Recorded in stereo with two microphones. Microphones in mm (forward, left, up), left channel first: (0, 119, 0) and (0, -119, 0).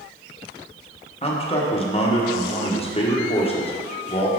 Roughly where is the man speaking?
Left.